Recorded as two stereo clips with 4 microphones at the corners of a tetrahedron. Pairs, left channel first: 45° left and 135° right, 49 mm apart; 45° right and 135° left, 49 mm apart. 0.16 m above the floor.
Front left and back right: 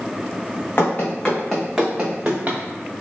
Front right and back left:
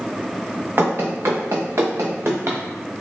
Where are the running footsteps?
95° left, 0.7 m; by 2.6 s 175° left, 0.9 m.